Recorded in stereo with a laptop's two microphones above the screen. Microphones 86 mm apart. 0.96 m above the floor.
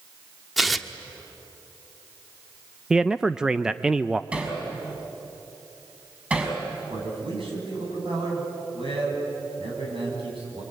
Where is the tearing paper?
Centre (ahead or behind), 1.2 m.